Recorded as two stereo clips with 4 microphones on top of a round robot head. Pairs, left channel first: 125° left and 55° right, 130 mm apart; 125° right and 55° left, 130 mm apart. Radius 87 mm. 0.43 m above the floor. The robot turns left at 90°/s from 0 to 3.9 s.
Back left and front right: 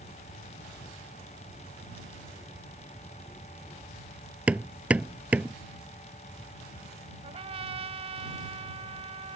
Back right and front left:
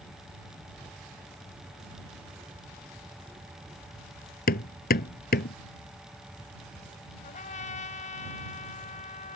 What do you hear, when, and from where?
4.5 s hammering: 135° right
7.2 s a trumpet: 100° right